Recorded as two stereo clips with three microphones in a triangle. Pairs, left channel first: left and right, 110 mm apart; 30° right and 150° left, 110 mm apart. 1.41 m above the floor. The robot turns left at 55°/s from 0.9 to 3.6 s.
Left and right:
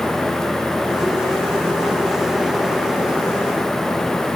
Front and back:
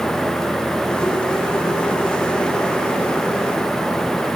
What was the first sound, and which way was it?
Only background noise.